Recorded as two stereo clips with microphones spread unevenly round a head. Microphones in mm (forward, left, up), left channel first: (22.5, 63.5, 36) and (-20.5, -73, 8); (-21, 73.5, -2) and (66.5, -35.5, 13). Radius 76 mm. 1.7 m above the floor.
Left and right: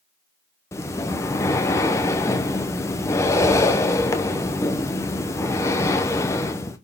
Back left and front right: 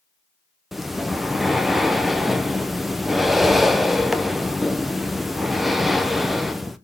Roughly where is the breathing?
Ahead left.